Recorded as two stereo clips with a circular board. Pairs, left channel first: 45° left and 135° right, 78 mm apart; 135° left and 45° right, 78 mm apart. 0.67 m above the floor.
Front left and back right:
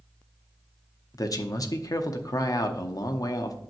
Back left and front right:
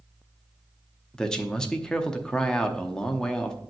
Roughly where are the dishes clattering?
I don't hear dishes clattering.